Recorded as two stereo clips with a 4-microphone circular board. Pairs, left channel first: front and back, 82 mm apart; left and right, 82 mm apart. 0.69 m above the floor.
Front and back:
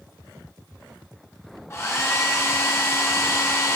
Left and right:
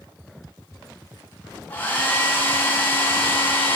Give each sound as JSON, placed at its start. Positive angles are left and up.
{"t": 1.7, "sound": "a hair dryer", "azimuth_deg": 35, "distance_m": 0.7}